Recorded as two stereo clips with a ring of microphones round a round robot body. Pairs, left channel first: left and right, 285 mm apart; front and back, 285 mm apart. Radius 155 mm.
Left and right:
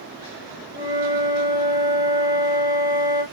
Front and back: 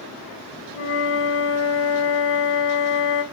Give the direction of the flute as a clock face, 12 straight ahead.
1 o'clock.